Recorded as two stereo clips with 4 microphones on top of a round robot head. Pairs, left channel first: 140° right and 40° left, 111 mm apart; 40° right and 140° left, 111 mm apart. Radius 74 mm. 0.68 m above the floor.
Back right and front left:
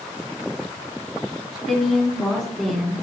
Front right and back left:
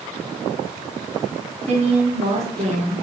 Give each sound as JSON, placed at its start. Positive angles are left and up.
{"t": 1.7, "sound": "a woman speaking", "azimuth_deg": 135, "distance_m": 1.9}